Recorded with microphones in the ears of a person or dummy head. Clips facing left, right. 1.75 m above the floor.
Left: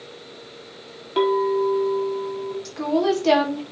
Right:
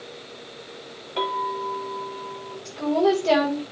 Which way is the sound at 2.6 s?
70° left (ahead or behind).